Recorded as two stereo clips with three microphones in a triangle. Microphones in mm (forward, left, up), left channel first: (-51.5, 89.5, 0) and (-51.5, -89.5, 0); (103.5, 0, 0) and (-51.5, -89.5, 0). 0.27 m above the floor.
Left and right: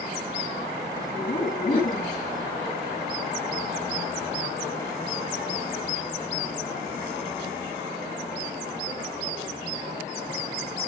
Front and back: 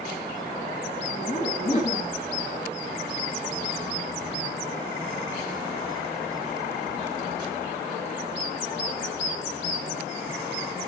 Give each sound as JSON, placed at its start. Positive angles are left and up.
{"t": 1.1, "sound": "laughter", "azimuth_deg": 65, "distance_m": 2.5}